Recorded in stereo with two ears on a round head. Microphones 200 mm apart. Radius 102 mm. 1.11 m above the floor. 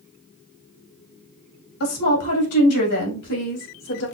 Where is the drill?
No drill in this recording.